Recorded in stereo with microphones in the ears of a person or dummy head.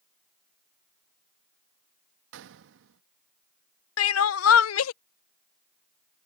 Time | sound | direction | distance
2.3 | a gunshot | 65° right (ahead or behind) | ?
4.0 | crying | 65° left (ahead or behind) | ?